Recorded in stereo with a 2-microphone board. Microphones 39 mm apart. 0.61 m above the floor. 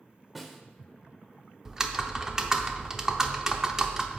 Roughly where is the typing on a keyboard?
Centre.